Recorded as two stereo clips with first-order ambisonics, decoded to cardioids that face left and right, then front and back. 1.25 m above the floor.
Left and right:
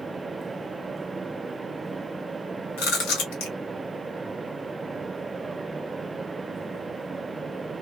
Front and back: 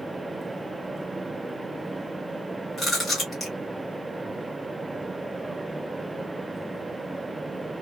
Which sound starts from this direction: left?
Chewing, at 2.8 s.